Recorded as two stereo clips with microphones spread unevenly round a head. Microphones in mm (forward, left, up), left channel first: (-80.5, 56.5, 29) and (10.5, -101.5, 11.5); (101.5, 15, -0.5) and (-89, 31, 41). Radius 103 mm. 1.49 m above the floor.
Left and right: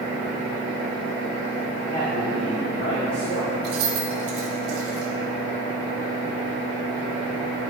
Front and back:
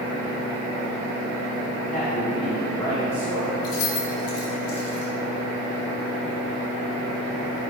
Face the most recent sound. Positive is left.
turn(degrees=-25)